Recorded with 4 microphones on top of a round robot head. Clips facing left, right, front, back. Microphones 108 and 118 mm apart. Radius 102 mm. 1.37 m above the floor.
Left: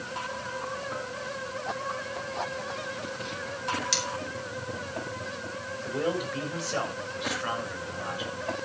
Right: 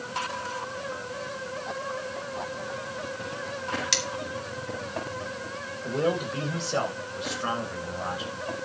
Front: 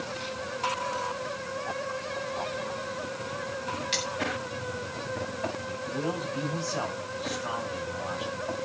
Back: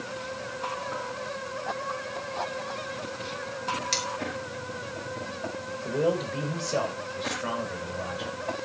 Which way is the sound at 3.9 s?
120° right.